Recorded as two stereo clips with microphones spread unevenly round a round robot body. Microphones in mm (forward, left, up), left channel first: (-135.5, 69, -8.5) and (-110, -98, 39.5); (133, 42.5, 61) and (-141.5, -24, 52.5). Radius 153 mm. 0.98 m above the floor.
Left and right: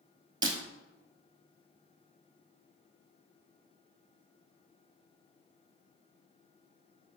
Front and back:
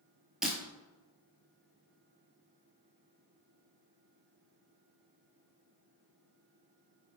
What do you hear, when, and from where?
0.4 s breaking glass: 75° right, 1.2 m